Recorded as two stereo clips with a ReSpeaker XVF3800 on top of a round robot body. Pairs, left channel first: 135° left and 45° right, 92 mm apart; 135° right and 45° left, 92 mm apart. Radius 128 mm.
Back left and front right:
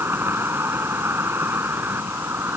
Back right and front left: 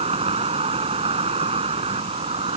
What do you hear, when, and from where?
0.0 s an insect: 25° left